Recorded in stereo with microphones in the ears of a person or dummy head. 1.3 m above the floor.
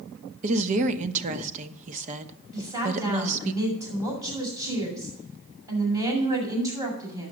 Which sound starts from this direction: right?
A woman speaking, at 0.4 s.